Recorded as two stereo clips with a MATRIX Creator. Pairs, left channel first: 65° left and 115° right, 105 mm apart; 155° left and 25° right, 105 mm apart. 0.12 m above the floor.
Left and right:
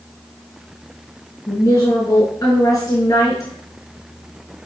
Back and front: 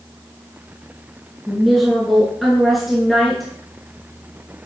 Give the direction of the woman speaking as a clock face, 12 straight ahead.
10 o'clock.